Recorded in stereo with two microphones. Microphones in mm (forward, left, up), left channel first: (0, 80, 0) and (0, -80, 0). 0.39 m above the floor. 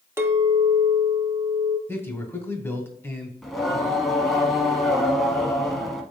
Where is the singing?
Centre (ahead or behind), 0.9 m.